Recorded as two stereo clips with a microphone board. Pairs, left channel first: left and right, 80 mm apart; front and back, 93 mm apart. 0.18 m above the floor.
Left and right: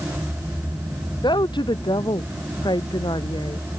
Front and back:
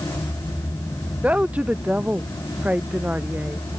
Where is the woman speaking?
105° left.